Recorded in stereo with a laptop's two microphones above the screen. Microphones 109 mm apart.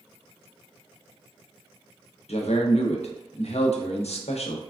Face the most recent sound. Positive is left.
turn(degrees=75)  # may be behind; listen again after turning